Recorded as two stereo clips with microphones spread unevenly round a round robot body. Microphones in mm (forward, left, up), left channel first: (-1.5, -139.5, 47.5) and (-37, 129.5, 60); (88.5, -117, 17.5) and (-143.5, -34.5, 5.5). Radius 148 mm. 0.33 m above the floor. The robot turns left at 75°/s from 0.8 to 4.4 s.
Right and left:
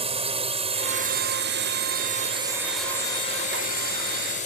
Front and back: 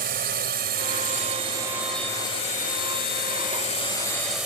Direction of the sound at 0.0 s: 155° left.